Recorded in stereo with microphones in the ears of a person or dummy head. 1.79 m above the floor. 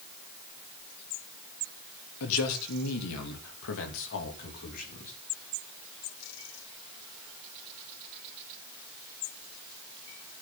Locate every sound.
2.2 s a man speaking: 75° left (ahead or behind), 4 m; by 5.1 s 35° left (ahead or behind), 4 m